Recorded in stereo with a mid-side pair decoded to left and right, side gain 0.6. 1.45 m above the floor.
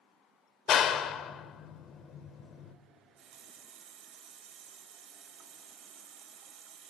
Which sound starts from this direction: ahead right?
A running tap, at 2.9 s.